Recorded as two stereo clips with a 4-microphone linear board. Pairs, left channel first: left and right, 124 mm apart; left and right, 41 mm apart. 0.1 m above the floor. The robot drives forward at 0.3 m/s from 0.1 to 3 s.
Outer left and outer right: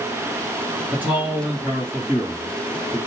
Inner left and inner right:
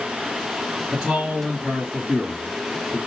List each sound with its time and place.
0.9 s a man speaking: 15° right (ahead or behind), 1.6 m; by 3.0 s 10° right (ahead or behind), 2 m